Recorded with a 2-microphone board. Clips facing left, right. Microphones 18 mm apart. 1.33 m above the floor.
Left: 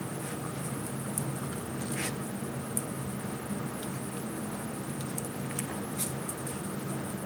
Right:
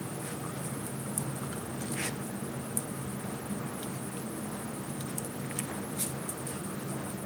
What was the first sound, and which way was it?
Only background noise.